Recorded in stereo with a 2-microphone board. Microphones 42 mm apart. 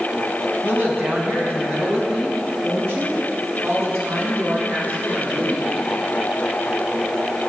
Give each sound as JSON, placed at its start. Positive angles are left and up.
{"t": 0.6, "sound": "a woman speaking", "side_deg": -75, "distance_m": 4.0}